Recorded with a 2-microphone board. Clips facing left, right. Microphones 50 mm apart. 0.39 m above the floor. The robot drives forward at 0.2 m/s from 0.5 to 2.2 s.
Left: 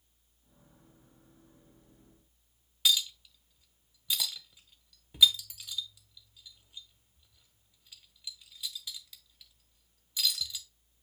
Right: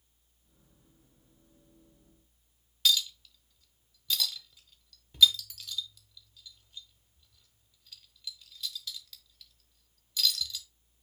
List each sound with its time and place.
2.9 s a clink: 15° left (ahead or behind), 0.7 m